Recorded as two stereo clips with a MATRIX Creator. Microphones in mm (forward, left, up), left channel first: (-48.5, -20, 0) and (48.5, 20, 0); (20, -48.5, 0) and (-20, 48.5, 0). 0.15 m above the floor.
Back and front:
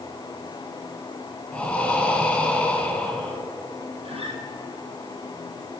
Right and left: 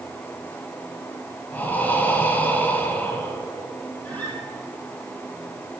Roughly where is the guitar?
Ahead.